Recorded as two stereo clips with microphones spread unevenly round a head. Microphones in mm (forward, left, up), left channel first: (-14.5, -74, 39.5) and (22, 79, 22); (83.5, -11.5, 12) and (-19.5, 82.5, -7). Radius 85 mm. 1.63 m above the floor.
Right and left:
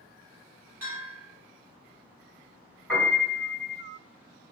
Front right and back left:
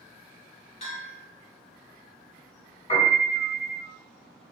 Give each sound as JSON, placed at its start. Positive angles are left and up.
{"t": 0.8, "sound": "a bell", "azimuth_deg": 0, "distance_m": 1.1}
{"t": 2.9, "sound": "a piano", "azimuth_deg": -20, "distance_m": 1.5}